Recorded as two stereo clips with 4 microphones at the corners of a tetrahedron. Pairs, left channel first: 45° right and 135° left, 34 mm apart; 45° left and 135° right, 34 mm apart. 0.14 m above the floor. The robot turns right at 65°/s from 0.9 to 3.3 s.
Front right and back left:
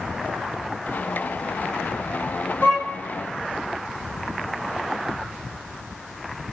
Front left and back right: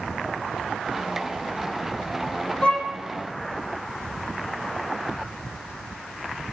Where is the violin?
15° right, 4 m; by 2.9 s 5° left, 4 m.